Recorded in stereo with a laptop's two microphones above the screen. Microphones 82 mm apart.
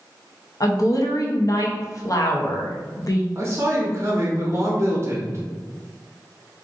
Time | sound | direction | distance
0.6 | a woman speaking | 50° left (ahead or behind) | 0.7 m
3.4 | a man speaking | 35° right (ahead or behind) | 0.7 m